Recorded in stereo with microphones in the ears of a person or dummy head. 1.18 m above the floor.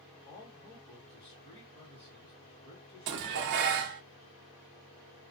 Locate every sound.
0.2 s a man speaking: 30° left (ahead or behind), 2 m
3.1 s dishes clattering: 65° right (ahead or behind), 0.6 m